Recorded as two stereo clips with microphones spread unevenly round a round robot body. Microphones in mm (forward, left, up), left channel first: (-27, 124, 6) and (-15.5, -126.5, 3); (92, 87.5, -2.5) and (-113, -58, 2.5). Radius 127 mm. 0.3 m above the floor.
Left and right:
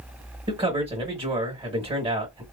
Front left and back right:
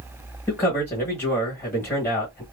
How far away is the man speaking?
About 1.0 m.